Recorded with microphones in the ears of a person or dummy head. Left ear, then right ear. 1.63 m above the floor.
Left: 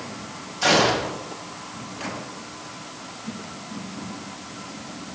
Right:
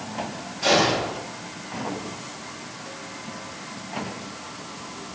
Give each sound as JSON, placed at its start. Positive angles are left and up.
{"t": 0.6, "sound": "a gunshot", "side_deg": 40, "distance_m": 2.5}